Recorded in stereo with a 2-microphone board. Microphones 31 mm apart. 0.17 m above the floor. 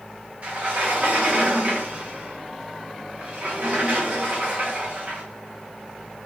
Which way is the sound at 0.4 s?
50° right (ahead or behind).